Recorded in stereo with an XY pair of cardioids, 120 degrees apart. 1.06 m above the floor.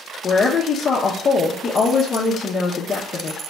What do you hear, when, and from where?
0.2 s a woman speaking: 40° left, 0.6 m